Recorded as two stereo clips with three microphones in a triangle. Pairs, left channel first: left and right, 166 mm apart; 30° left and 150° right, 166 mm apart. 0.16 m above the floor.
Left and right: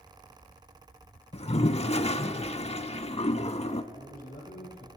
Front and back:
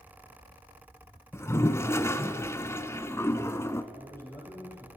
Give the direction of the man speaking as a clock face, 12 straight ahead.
9 o'clock.